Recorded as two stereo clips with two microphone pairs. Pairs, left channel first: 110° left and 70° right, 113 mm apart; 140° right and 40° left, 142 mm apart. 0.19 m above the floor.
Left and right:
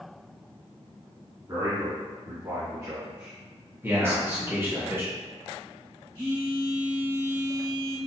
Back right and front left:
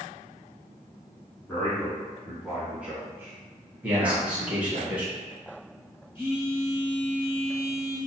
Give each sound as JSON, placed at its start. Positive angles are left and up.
{"t": 1.5, "sound": "a man speaking", "azimuth_deg": -80, "distance_m": 1.6}
{"t": 3.8, "sound": "a man speaking", "azimuth_deg": -30, "distance_m": 1.2}
{"t": 6.2, "sound": "a phone buzzing", "azimuth_deg": -100, "distance_m": 1.7}